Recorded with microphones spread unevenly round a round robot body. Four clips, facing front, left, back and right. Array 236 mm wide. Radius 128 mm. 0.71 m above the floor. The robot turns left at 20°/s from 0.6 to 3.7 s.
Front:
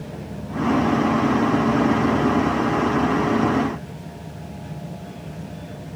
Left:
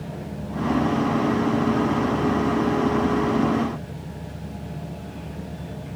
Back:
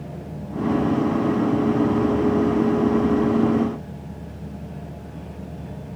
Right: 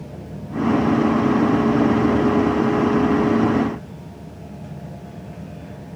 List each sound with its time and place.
Only background noise.